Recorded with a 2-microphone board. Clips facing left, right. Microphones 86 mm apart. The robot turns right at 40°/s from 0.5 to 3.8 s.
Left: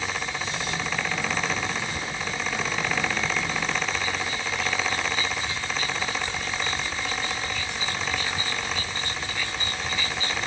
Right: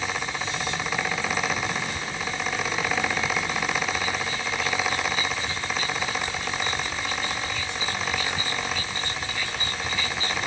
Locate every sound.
Only background noise.